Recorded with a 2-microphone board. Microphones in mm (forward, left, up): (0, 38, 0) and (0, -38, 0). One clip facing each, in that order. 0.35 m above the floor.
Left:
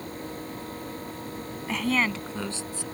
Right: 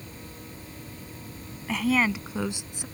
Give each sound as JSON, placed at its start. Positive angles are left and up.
{"t": 1.7, "sound": "a woman speaking", "side_deg": 0}